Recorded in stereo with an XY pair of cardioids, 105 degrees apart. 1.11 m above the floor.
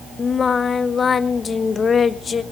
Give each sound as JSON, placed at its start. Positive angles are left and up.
{"t": 0.2, "sound": "singing", "azimuth_deg": 40, "distance_m": 1.0}